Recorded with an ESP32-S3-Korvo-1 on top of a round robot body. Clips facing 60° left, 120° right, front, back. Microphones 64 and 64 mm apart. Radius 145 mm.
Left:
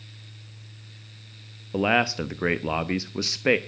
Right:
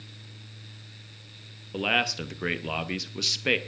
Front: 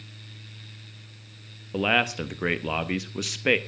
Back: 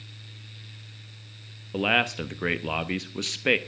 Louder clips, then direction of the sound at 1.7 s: Left 5 dB, front 1 dB; 85° left.